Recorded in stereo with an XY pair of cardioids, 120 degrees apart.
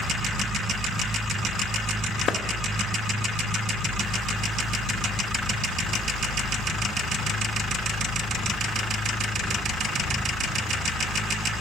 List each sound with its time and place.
2.3 s a clap: 55° left, 0.6 m